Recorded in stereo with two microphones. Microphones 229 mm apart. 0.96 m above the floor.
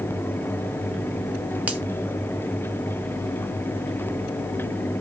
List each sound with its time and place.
1.7 s a finger snap: 5° right (ahead or behind), 1.2 m